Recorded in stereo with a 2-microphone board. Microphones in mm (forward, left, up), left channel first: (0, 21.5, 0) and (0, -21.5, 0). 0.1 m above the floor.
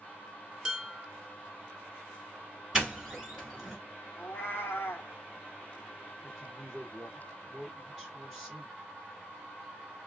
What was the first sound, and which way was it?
Dishes clattering, 15° right (ahead or behind).